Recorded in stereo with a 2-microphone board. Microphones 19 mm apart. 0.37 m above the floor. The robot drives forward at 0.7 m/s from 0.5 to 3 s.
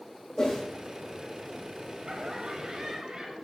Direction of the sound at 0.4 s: 25° left (ahead or behind).